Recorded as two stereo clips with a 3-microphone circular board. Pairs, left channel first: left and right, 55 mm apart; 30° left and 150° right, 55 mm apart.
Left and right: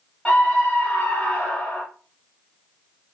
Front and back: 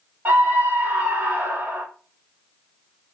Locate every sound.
0.2 s a scream: 165° left, 4 m